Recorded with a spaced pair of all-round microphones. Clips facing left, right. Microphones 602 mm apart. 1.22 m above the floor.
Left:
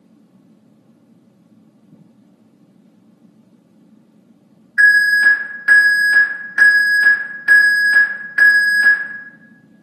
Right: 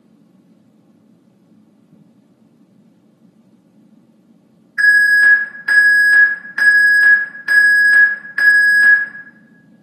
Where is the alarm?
15° left (ahead or behind), 0.9 m.